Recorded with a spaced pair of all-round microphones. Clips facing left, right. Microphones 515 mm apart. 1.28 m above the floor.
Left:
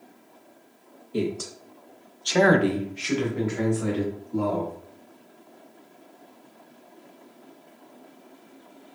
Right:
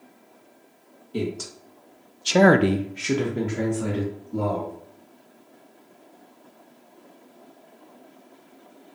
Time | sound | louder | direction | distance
1.1 | a man speaking | left 1 dB | 5° right (ahead or behind) | 1.0 m